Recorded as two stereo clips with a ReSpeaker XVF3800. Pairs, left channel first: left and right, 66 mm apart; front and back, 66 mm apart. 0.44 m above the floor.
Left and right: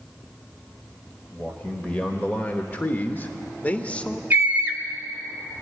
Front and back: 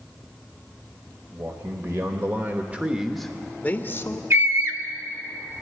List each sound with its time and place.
1.3 s a man speaking: 160° left, 1.8 m; by 4.2 s 20° left, 1.2 m
4.3 s a scream: 150° right, 2.5 m